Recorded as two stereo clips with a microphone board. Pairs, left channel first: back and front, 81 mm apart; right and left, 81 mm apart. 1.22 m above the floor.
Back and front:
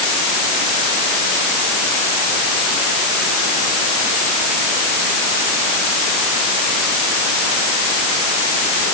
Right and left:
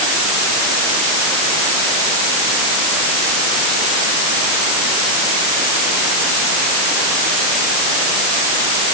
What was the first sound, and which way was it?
Only background noise.